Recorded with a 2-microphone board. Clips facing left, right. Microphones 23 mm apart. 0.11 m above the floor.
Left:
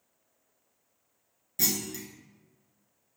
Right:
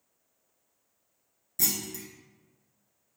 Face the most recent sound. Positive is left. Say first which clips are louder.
# left 2 dB
turn(degrees=20)  # may be behind; listen again after turning